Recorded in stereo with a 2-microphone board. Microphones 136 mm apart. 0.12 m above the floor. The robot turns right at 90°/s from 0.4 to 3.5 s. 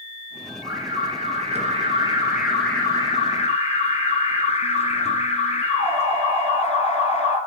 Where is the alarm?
170° right, 2 m; by 7.4 s 85° left, 2 m.